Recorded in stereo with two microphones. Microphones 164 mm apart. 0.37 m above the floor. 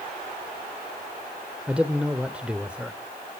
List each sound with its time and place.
1.7 s a man speaking: 5° right (ahead or behind), 0.9 m